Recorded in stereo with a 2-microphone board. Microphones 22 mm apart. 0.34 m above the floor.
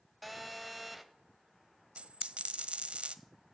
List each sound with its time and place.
0.2 s a phone buzzing: 5° right (ahead or behind), 0.9 m
2.0 s a dropped coin: 60° right (ahead or behind), 0.7 m